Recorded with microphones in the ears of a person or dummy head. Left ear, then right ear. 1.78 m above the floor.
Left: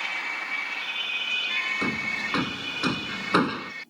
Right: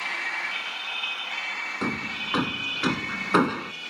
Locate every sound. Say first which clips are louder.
1.8 s hammering: left 2 dB; 15° right (ahead or behind)